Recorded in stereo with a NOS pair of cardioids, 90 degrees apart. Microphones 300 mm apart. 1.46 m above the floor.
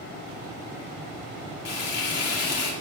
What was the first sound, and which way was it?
Frying, 55° left.